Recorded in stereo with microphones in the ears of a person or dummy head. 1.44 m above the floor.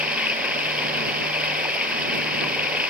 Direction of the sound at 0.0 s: 5° right (ahead or behind).